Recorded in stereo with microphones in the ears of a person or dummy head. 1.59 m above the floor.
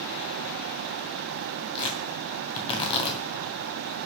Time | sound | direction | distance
1.8 | tearing paper | 30° left (ahead or behind) | 2 m